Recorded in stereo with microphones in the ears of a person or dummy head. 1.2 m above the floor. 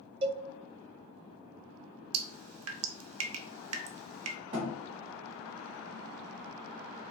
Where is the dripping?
80° right, 0.6 m.